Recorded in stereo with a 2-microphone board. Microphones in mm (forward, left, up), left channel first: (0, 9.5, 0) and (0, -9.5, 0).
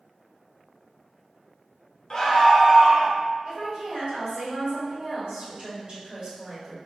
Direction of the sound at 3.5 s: 60° right (ahead or behind).